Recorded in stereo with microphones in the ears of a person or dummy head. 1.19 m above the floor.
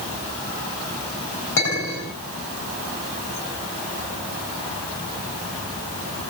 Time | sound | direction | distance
1.6 | a clink | 60° left (ahead or behind) | 7.5 m